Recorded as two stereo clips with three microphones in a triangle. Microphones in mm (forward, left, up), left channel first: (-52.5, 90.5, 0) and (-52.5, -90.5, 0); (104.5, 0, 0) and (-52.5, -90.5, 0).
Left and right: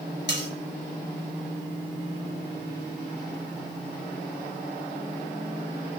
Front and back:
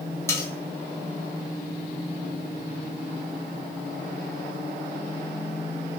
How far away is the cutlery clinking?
About 1.8 m.